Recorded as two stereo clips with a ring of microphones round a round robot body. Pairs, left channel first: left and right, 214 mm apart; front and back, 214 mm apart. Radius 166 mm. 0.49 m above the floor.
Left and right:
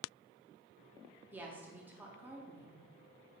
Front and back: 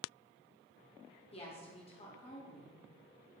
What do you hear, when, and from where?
1.3 s a woman speaking: 15° right, 0.9 m